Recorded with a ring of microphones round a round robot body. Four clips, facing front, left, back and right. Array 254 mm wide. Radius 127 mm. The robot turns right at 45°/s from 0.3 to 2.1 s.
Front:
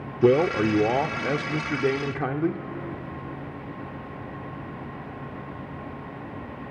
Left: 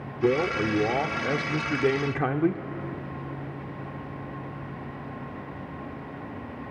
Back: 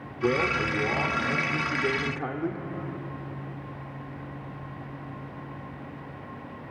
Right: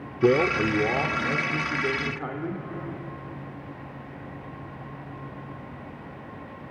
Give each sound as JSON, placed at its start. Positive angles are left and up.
{"t": 0.2, "sound": "a man speaking", "azimuth_deg": -20, "distance_m": 0.9}